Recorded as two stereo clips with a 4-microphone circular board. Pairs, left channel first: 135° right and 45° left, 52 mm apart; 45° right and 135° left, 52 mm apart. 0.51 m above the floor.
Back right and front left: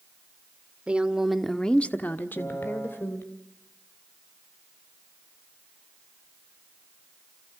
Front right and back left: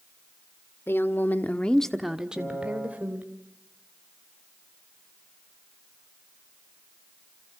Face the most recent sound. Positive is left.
turn(degrees=-110)